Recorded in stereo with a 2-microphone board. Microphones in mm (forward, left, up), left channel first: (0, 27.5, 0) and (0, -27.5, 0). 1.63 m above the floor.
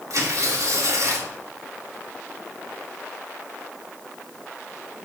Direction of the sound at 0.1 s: 70° right (ahead or behind).